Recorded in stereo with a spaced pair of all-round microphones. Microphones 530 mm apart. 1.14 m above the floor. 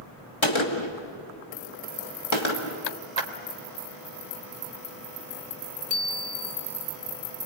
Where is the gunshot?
60° left (ahead or behind), 2.5 m.